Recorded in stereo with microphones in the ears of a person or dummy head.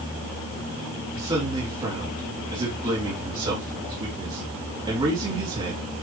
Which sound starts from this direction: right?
A man speaking, at 1.1 s.